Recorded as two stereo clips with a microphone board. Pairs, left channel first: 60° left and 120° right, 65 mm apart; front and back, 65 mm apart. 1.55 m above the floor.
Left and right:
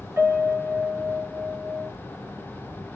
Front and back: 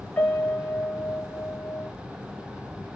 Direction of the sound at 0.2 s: 70° right.